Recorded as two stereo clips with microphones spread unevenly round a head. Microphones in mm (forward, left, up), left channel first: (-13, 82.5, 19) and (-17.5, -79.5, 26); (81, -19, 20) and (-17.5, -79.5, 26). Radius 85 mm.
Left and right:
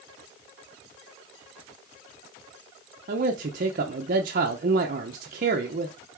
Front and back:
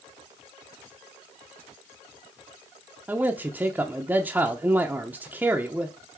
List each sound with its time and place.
3.1 s a man speaking: 70° right, 0.9 m